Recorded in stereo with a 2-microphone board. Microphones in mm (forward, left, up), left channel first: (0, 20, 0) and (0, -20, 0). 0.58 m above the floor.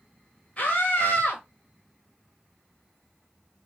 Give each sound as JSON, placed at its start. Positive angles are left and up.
{"t": 0.6, "sound": "a scream", "side_deg": 35, "distance_m": 2.0}